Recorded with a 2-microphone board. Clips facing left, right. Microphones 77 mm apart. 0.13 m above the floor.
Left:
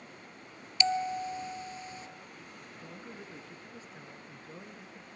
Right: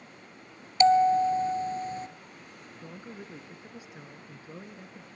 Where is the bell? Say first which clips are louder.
Right 11 dB; 40° right (ahead or behind), 0.6 m.